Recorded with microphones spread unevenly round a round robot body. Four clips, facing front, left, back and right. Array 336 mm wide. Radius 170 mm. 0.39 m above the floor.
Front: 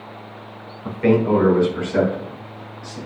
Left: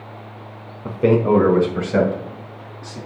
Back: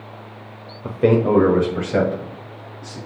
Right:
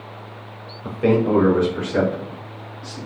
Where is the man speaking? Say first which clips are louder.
Left 2 dB, back 1 dB; 170° left, 1.4 m; by 3.0 s 130° left, 3.5 m.